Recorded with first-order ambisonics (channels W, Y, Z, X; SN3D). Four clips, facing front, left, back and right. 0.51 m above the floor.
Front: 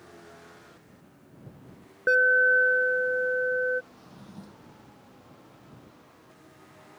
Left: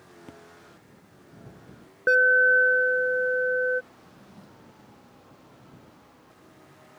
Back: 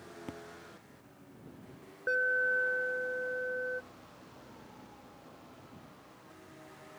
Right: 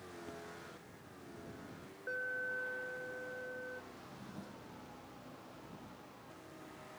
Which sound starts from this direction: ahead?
A drawer, at 3.9 s.